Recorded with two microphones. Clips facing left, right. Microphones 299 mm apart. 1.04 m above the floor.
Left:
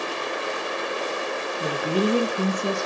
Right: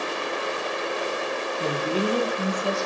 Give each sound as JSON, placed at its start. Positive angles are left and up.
{"t": 1.6, "sound": "a woman speaking", "side_deg": -5, "distance_m": 0.6}